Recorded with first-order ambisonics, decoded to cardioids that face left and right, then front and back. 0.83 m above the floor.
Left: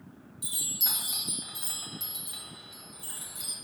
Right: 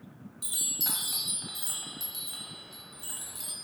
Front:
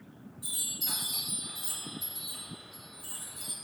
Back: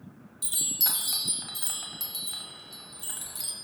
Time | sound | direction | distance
0.4 | a chime | 175° right | 1.1 m